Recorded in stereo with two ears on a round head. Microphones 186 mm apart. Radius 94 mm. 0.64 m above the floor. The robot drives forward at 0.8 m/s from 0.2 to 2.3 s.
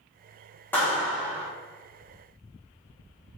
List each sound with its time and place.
0.7 s a clap: 10° left (ahead or behind), 1.0 m; by 1.5 s 5° left (ahead or behind), 1.4 m